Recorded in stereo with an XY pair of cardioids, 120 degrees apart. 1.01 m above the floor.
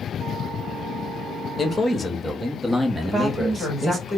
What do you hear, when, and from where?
1.6 s a man speaking: 30° left, 1.4 m; by 4.0 s 30° right, 1.3 m
3.0 s a woman speaking: straight ahead, 3 m